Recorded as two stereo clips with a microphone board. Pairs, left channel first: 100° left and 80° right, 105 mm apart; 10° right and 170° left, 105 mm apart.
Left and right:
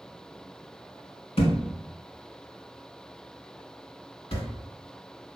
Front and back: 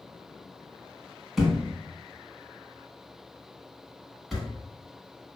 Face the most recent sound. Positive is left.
turn(degrees=80)